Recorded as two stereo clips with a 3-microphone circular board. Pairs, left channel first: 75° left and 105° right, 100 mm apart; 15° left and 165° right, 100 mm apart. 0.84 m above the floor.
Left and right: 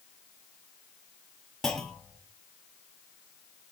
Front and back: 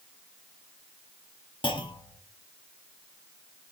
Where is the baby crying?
I don't hear a baby crying.